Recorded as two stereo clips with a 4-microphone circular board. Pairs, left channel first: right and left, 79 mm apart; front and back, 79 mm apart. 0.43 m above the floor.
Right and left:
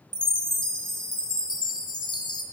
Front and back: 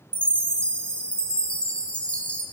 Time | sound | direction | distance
0.1 | a chime | 75° right | 1.2 m